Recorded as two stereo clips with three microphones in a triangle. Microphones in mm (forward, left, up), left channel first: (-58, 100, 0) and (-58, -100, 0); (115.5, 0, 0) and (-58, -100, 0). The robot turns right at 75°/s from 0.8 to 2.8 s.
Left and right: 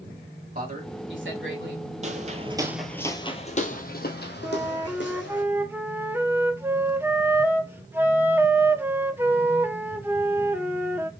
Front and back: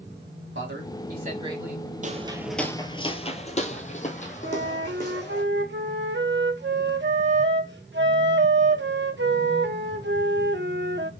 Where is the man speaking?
135° right, 2 m; by 1.9 s 55° right, 2 m.